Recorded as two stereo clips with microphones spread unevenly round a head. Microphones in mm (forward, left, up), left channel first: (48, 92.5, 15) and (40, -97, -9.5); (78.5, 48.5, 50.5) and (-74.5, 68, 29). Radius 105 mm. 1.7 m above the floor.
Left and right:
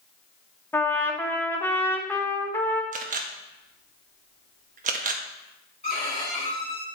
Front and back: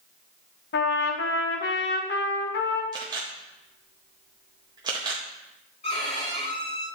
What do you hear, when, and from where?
0.7 s a trumpet: 10° left, 0.9 m
2.9 s a camera shutter: 120° right, 0.7 m
5.8 s a violin: 35° left, 3.5 m